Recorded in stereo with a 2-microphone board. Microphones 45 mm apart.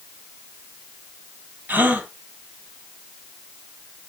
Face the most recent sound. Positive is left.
turn(degrees=-45)  # may be behind; listen again after turning